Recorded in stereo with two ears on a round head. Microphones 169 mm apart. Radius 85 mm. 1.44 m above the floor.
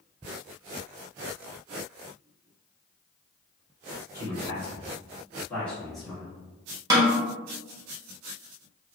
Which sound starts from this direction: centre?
A snare drum, at 6.9 s.